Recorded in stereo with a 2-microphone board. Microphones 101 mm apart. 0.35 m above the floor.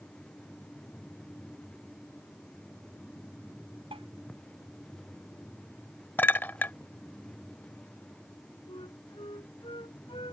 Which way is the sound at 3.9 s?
65° right (ahead or behind).